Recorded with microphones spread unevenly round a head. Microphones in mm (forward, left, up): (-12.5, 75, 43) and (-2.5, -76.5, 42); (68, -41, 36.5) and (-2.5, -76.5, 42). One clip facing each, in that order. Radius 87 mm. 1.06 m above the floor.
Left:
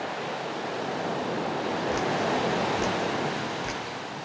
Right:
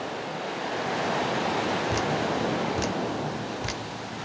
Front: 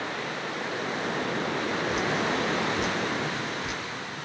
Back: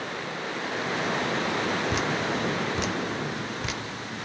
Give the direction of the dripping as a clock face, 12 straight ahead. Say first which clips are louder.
Even, even; 5 o'clock.